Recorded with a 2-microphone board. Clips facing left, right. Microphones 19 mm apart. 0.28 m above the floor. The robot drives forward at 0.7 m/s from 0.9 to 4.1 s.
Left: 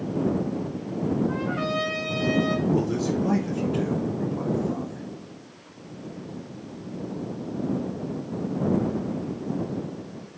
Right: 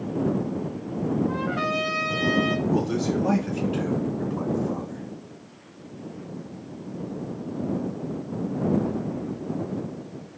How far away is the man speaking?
About 2 m.